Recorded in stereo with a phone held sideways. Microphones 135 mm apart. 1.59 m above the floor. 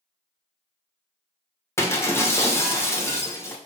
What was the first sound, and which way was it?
Breaking glass, 20° left (ahead or behind).